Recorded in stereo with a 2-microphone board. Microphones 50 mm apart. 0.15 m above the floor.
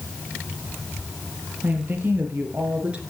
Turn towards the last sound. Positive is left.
turn(degrees=-25)  # may be behind; listen again after turning